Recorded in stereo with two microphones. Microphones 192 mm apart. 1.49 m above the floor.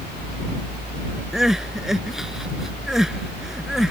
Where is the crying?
Centre (ahead or behind).